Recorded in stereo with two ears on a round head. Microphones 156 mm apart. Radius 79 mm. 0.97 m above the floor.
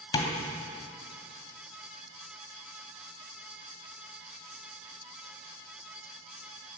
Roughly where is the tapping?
Left.